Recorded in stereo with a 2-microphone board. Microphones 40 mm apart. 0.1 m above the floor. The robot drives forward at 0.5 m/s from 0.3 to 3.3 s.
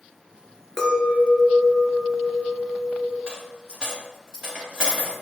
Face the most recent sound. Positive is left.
turn(degrees=-20)  # may be behind; listen again after turning